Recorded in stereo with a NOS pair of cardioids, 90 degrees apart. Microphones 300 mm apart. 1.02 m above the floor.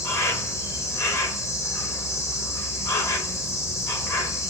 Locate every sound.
0.0 s an insect: 10° left, 0.8 m